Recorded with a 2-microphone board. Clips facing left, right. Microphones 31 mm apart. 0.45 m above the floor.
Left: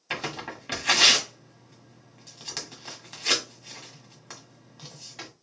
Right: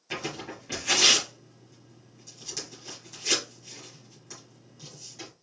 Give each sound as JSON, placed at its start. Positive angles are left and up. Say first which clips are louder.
{"t": 0.1, "sound": "tearing paper", "louder": "left 2 dB", "side_deg": 50, "distance_m": 1.4}